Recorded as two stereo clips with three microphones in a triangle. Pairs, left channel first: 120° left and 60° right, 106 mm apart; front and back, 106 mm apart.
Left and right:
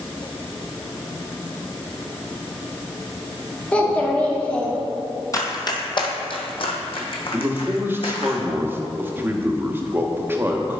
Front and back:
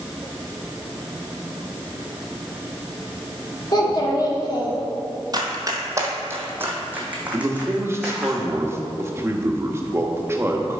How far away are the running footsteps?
About 0.9 m.